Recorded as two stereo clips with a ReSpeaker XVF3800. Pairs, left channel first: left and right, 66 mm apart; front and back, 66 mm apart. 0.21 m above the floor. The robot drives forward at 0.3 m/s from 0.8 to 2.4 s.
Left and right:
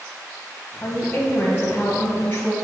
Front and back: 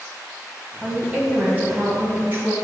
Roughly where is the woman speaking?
Behind left.